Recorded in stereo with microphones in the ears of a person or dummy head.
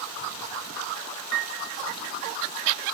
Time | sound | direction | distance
1.3 | a piano | 60° right (ahead or behind) | 0.6 m